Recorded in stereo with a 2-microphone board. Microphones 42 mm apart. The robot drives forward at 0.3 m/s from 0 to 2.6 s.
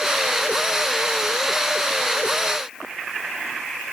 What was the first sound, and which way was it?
Only background noise.